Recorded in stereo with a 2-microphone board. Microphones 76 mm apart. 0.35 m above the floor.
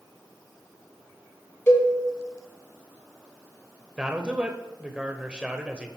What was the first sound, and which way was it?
A cowbell, 30° left (ahead or behind).